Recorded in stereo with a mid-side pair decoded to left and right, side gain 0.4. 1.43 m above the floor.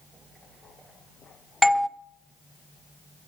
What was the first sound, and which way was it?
A doorbell, 10° left.